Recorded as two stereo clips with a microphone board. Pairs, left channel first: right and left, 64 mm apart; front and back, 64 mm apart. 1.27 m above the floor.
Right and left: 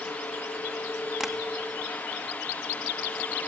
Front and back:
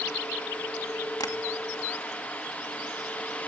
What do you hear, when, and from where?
1.2 s tapping: 5° left, 2 m